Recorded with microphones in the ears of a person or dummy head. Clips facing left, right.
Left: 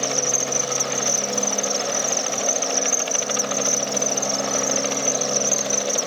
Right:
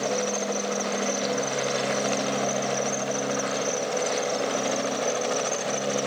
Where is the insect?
75° left (ahead or behind), 0.9 m.